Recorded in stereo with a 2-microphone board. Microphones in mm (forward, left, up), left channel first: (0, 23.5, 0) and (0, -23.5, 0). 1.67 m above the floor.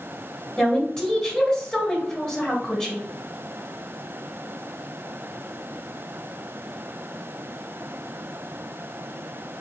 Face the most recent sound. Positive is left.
turn(degrees=20)  # may be behind; listen again after turning